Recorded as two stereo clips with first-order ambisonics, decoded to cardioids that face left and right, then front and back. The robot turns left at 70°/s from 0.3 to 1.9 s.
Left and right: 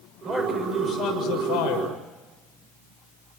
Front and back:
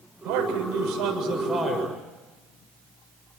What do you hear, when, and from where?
0.2 s a man speaking: 155° right, 7 m; by 2.0 s 90° left, 7 m